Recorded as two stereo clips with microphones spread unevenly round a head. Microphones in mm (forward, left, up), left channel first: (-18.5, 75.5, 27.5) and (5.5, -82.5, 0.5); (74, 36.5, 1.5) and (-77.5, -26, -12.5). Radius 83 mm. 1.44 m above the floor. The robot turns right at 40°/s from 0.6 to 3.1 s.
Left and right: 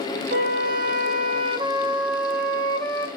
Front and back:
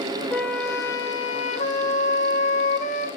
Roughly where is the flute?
Ahead right.